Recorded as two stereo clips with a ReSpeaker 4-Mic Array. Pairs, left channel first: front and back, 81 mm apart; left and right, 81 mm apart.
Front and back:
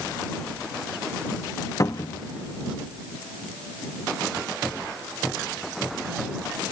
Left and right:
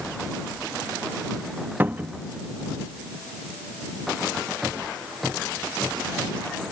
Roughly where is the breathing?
No breathing in this recording.